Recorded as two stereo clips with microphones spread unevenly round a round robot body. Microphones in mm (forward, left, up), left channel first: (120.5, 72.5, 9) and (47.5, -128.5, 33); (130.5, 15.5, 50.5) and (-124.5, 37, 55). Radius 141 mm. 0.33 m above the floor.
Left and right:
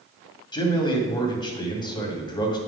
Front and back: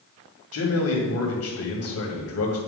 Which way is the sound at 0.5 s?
5° left.